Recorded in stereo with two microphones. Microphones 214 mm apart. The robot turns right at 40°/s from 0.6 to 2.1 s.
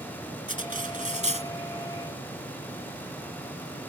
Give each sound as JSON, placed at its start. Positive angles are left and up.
{"t": 0.5, "sound": "cutlery clinking", "azimuth_deg": -90}